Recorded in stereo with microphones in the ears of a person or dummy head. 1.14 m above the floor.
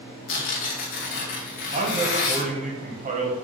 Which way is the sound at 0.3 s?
45° left (ahead or behind).